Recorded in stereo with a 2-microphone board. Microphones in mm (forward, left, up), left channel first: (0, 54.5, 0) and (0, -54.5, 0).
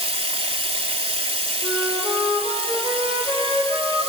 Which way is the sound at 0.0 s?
65° right (ahead or behind).